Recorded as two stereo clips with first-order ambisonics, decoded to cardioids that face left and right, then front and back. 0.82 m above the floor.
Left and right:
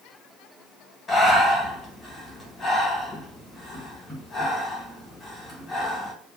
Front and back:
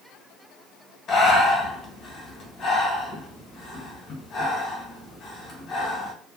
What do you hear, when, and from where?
1.1 s breathing: 35° left, 1.1 m